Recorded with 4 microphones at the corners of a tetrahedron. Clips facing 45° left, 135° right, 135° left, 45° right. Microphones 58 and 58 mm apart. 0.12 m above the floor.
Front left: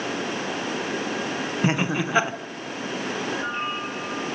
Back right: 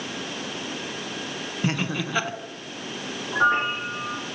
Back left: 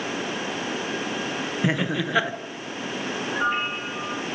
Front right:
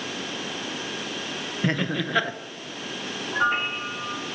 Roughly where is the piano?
Behind right.